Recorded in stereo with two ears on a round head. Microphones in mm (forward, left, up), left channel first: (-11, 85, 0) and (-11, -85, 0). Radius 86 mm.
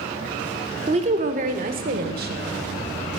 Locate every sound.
0.9 s a woman speaking: 35° right (ahead or behind), 1.0 m; by 2.5 s 55° right (ahead or behind), 1.7 m